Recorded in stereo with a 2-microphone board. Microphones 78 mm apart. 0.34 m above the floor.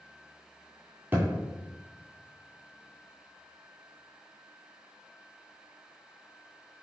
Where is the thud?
30° right (ahead or behind), 1.8 m.